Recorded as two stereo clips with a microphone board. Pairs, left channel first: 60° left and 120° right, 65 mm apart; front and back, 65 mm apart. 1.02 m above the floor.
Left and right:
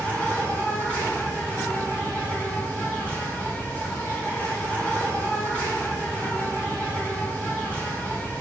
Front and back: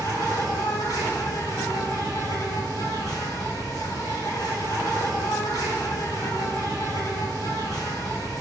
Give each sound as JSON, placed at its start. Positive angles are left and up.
{"t": 0.0, "sound": "an insect", "azimuth_deg": -5, "distance_m": 2.5}